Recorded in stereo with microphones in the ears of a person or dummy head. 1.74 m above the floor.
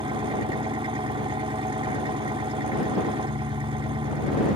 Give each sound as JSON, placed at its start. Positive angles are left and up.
{"t": 0.0, "sound": "an engine running", "side_deg": -30}